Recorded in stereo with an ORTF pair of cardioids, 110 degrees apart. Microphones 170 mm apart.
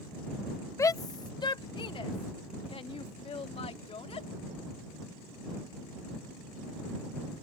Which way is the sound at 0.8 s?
15° left.